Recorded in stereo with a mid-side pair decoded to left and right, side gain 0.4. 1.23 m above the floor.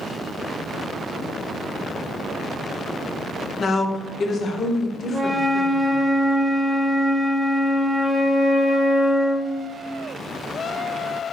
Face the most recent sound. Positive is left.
turn(degrees=-20)